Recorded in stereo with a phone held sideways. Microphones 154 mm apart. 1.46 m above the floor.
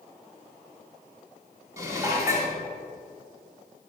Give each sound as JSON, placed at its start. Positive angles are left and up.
{"t": 1.8, "sound": "dishes clattering", "side_deg": -20, "distance_m": 2.0}